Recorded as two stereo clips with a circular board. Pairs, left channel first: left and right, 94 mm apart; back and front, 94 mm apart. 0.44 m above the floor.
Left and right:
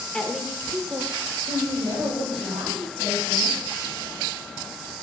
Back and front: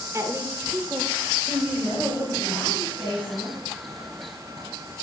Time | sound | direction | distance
0.1 | a woman speaking | 20° left | 1.2 m